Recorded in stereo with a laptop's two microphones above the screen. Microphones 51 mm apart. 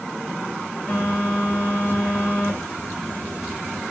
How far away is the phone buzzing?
About 3.5 m.